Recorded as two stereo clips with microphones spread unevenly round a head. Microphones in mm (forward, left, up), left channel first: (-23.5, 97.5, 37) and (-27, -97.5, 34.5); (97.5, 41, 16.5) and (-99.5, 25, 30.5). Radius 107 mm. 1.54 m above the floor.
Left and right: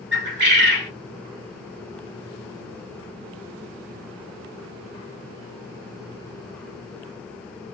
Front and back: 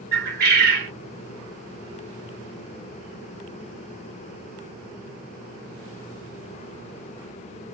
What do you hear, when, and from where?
0.1 s a bird: 125° right, 2 m